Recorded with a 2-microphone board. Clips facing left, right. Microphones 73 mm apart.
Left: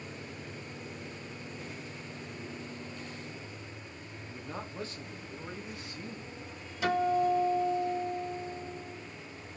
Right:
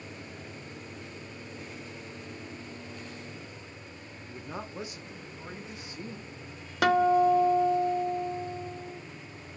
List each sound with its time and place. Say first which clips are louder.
4.3 s a man speaking: right 2 dB; 10° right (ahead or behind), 0.7 m; by 6.3 s 20° right (ahead or behind), 2.5 m
6.8 s a guitar: right 6 dB; 75° right (ahead or behind), 0.9 m